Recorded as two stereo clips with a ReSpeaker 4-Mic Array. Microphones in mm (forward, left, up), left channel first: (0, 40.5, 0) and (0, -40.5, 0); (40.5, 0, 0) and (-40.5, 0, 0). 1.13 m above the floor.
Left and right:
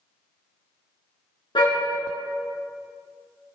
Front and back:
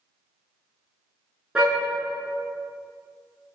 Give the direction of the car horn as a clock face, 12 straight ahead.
9 o'clock.